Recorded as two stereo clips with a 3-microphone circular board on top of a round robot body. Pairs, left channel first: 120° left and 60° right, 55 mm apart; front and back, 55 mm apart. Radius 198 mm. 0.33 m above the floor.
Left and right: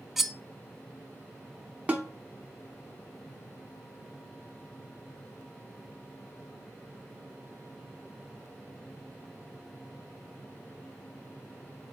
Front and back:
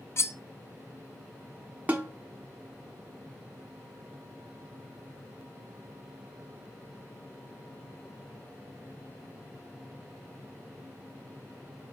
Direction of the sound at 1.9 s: 120° right.